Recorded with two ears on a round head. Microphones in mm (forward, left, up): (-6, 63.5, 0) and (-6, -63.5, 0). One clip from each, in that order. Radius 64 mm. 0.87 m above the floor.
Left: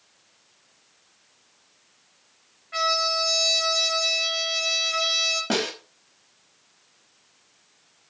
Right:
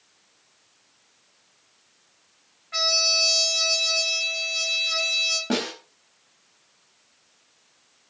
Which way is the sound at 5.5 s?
25° left (ahead or behind).